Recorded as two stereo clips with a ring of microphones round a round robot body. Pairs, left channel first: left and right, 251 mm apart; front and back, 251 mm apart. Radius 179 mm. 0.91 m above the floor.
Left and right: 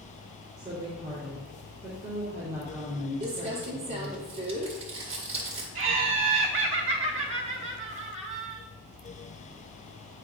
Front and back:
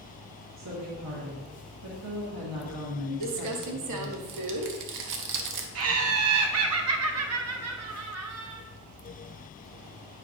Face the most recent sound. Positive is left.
turn(degrees=-160)